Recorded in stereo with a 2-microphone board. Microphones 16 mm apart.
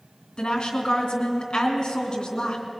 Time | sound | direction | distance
0.4 | a woman speaking | 60° left (ahead or behind) | 2.5 m